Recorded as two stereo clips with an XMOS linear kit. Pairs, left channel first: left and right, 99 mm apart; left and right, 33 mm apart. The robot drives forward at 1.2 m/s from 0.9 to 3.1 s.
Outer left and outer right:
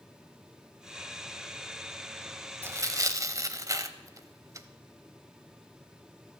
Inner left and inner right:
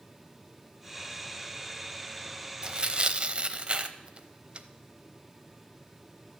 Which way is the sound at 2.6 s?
25° right (ahead or behind).